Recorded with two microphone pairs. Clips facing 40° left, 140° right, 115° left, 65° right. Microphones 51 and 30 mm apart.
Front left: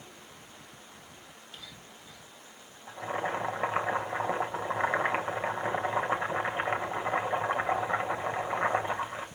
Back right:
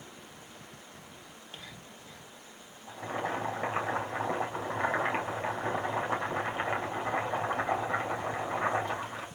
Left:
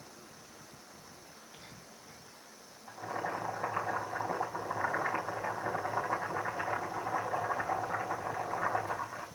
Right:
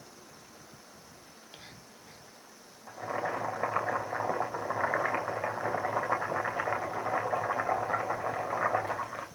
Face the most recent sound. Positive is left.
turn(degrees=-30)